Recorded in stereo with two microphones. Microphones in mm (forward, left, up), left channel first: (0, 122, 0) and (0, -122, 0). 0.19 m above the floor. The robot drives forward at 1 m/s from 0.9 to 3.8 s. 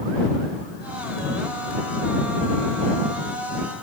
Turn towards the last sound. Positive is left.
No sound to turn to.